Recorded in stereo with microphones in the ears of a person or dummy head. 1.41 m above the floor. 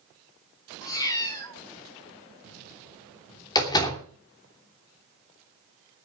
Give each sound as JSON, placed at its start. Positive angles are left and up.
{"t": 0.8, "sound": "a cat meowing", "side_deg": 20, "distance_m": 2.5}
{"t": 3.5, "sound": "a door slam", "side_deg": 25, "distance_m": 3.0}